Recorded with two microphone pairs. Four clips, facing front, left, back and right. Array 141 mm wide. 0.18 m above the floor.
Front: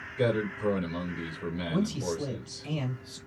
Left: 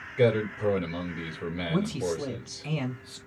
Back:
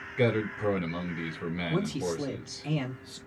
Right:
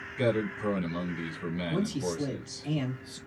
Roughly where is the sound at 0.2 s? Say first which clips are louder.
Left 4 dB, back 1 dB; behind left.